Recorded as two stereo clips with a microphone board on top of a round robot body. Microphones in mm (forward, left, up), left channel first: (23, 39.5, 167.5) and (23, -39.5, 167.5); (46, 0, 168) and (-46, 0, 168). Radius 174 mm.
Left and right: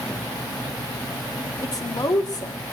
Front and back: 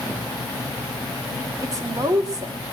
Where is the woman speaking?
130° left, 3 m.